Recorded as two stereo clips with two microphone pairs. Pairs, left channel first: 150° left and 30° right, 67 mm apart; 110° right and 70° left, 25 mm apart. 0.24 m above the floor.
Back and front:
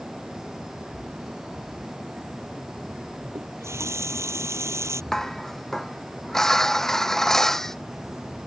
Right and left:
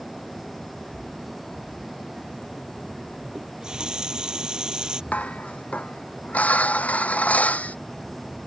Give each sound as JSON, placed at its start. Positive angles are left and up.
{"t": 3.4, "sound": "a running tap", "azimuth_deg": 15}
{"t": 5.1, "sound": "dishes clattering", "azimuth_deg": -130}